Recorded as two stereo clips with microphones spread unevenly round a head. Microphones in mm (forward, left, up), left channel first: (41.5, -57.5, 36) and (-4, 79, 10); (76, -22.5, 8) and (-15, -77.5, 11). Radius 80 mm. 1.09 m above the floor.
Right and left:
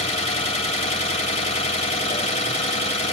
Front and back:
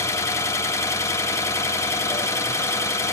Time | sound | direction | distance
0.0 | an engine running | 30° right | 1.9 m